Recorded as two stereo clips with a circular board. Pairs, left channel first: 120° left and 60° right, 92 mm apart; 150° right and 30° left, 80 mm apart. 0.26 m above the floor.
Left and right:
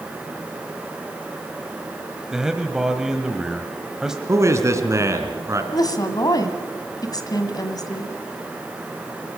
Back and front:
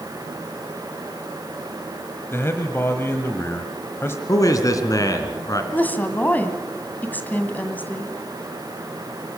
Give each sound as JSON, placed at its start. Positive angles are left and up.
{"t": 2.3, "sound": "a man speaking", "azimuth_deg": -140, "distance_m": 1.2}
{"t": 4.3, "sound": "a man speaking", "azimuth_deg": -115, "distance_m": 2.5}
{"t": 5.7, "sound": "a woman speaking", "azimuth_deg": 150, "distance_m": 1.8}